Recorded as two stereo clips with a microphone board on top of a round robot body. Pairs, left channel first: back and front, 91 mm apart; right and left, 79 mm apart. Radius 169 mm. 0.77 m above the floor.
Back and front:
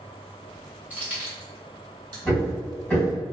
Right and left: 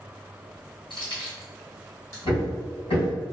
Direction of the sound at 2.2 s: 100° right.